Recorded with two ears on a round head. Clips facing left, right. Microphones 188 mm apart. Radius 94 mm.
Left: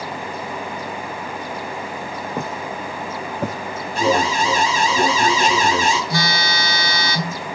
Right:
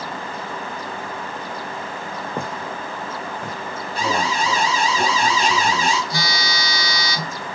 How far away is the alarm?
About 4.5 m.